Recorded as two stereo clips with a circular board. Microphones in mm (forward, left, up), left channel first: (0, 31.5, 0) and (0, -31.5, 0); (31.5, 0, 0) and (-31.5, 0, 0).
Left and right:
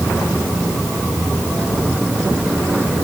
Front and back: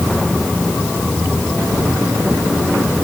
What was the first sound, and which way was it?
Only background noise.